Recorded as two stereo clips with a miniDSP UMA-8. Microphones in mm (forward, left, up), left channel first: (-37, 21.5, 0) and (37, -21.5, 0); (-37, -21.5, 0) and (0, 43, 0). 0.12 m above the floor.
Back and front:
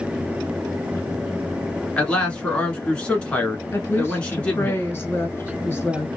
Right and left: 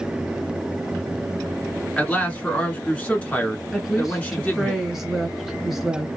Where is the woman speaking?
145° left, 1.2 m.